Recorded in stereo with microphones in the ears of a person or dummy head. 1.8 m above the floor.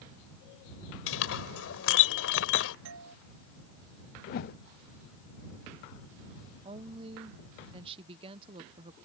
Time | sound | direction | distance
1.1 | a clink | 80° left | ?
2.9 | a doorbell | 75° right (ahead or behind) | ?
4.3 | a whoosh | 50° left (ahead or behind) | ?
6.6 | a woman speaking | 35° right (ahead or behind) | ?